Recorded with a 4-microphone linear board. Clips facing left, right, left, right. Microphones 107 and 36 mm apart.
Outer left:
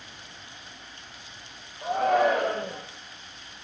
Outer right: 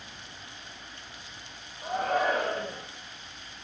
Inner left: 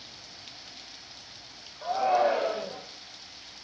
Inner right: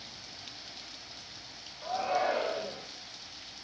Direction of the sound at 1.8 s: 70° left (ahead or behind).